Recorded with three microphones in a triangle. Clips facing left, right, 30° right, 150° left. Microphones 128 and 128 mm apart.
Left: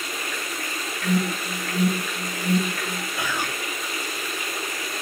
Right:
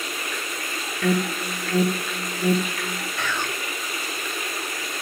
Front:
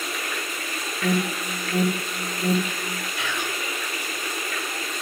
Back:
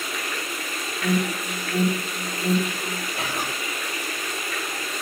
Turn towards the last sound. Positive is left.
turn(degrees=160)